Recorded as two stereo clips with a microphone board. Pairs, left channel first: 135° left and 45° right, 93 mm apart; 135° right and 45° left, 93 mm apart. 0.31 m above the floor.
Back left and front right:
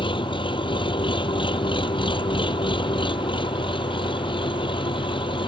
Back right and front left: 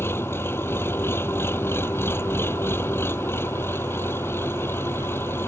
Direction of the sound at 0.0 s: 160° left.